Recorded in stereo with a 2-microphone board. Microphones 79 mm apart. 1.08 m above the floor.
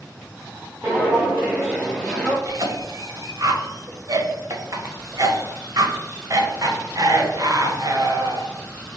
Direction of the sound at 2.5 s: 45° right (ahead or behind).